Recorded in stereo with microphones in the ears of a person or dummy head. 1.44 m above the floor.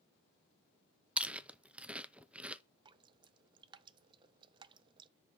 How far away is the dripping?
About 0.5 m.